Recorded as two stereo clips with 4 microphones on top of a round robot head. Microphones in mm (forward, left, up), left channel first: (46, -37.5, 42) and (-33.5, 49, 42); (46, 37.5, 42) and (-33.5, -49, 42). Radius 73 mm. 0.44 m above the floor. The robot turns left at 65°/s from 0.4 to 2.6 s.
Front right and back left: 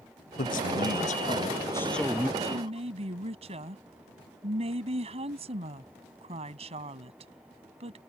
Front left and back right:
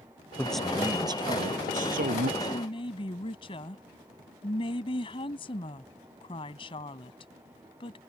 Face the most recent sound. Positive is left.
turn(degrees=95)